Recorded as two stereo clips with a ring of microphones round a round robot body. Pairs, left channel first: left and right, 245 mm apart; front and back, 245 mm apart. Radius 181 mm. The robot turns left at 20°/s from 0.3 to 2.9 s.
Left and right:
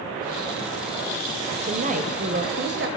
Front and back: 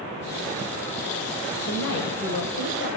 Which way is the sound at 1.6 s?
30° right.